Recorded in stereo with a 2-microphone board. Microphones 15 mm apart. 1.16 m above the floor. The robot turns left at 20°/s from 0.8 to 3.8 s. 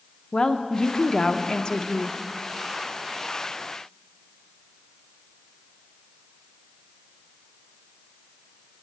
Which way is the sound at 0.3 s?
80° left.